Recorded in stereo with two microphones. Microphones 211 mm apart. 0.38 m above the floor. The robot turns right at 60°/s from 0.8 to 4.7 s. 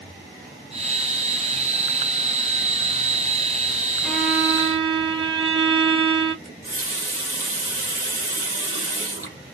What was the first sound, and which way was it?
A violin, 175° left.